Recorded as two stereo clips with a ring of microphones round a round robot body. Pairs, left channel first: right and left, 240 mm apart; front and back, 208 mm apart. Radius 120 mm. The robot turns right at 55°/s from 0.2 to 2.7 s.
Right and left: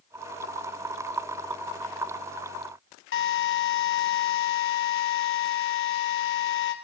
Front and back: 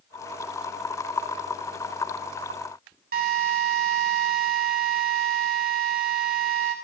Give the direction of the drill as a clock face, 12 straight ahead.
4 o'clock.